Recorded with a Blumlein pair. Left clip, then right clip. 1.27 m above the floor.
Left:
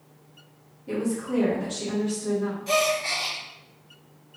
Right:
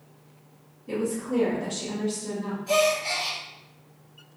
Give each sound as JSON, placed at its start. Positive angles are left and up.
{"t": 0.9, "sound": "a woman speaking", "azimuth_deg": 65, "distance_m": 1.8}
{"t": 2.7, "sound": "a gasp", "azimuth_deg": 55, "distance_m": 1.4}